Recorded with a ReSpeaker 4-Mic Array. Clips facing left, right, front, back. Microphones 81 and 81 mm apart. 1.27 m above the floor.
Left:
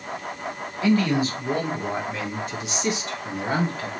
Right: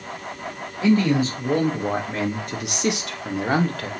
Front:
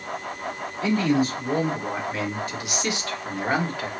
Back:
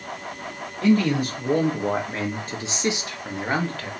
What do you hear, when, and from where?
0.8 s a man speaking: 150° right, 1.7 m; by 3.9 s 75° right, 0.8 m